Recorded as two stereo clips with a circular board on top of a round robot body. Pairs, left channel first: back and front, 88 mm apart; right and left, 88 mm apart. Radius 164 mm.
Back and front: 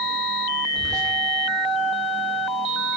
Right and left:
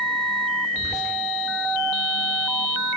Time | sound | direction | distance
0.7 | whispering | 45° right | 1.6 m